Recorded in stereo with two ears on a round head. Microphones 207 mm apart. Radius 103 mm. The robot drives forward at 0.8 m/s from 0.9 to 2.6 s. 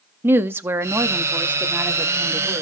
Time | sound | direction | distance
0.2 | a woman speaking | 10° right (ahead or behind) | 0.7 m